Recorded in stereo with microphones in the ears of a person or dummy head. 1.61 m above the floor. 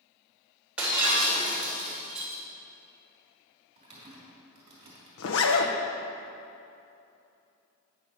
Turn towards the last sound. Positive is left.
turn(degrees=80)